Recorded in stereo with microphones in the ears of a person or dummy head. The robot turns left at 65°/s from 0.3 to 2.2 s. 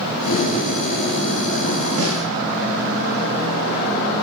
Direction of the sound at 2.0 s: 75° right (ahead or behind).